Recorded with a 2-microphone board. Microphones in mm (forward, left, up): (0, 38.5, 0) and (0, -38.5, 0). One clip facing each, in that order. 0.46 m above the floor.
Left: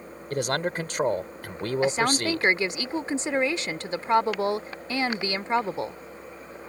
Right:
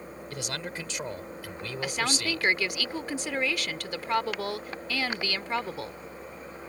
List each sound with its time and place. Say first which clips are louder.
0.3 s a man speaking: left 11 dB; 45° left (ahead or behind)
1.8 s a woman speaking: left 6 dB; 25° left (ahead or behind)